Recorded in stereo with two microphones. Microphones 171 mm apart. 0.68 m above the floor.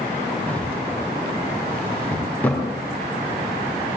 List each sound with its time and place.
0.5 s a drawer: 10° left (ahead or behind), 3 m